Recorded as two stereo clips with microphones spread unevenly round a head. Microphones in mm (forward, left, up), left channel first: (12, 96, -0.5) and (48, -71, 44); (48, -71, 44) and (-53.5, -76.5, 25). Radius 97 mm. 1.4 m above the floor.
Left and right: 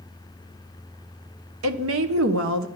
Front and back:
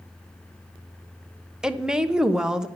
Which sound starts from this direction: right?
A woman speaking, at 1.6 s.